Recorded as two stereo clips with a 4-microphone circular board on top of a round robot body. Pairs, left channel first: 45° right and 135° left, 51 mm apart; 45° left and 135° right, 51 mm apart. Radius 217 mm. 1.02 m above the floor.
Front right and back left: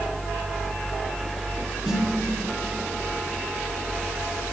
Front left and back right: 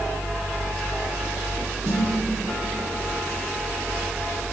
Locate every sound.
1.8 s a snare drum: 135° right, 3.5 m